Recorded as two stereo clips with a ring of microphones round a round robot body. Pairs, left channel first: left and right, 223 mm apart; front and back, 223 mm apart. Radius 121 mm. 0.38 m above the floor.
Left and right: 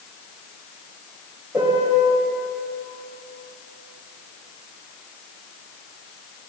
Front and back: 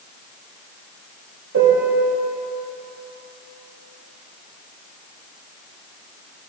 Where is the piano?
170° right, 1.3 m.